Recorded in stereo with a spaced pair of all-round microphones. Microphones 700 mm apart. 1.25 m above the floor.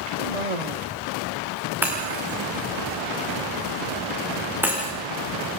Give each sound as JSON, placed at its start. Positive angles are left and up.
{"t": 0.2, "sound": "a cough", "side_deg": -65, "distance_m": 1.0}
{"t": 1.8, "sound": "breaking glass", "side_deg": -5, "distance_m": 5.5}